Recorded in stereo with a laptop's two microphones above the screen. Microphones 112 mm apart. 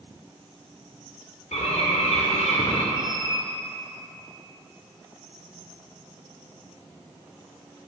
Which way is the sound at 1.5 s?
80° left.